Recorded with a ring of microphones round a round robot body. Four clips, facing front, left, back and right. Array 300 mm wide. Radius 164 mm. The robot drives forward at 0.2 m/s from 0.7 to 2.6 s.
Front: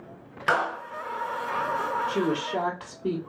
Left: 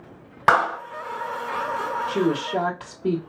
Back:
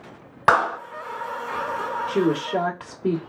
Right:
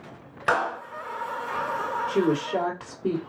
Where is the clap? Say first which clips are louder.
Left 6 dB, back 7 dB; 145° left, 1.3 m.